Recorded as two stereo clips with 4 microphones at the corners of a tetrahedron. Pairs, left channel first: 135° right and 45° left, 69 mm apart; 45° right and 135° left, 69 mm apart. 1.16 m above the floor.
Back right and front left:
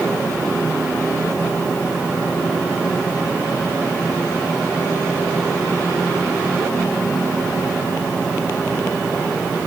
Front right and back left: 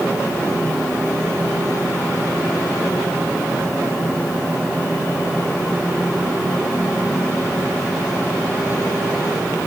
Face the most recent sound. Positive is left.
No sound to turn to.